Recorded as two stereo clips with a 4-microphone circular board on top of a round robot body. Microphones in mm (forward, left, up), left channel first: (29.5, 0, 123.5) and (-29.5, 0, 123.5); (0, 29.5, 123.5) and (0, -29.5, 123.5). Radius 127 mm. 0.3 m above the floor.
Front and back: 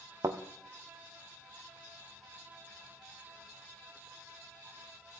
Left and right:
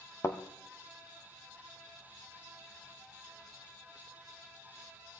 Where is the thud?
140° left, 1.9 m.